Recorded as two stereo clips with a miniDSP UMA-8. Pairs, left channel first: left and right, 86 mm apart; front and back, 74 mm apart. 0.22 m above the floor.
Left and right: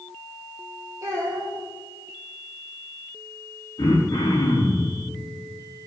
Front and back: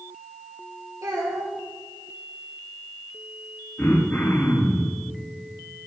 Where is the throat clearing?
65° left, 5 m.